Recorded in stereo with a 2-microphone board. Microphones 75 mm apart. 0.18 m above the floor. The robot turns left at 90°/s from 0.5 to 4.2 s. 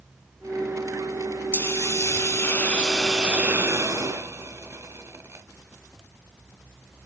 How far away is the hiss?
About 1.8 m.